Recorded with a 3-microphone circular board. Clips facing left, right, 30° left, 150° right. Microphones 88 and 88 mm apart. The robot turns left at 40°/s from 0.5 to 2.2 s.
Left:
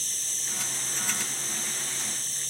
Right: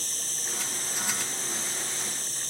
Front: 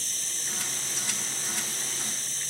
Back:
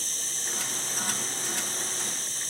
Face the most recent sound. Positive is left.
turn(degrees=-70)